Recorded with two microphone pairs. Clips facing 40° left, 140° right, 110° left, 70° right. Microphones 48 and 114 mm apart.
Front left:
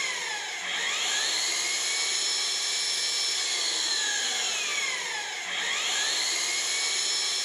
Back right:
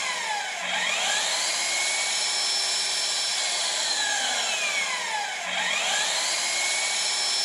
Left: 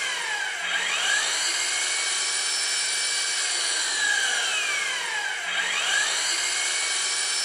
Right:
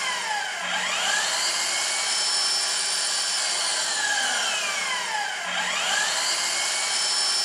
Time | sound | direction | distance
0.0 | an engine running | 130° right | 4.5 m